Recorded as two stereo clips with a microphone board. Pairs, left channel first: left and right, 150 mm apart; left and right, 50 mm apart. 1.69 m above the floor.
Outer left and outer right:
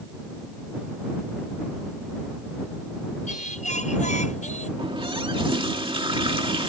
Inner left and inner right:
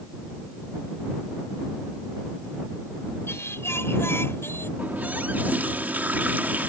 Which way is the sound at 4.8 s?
35° right (ahead or behind).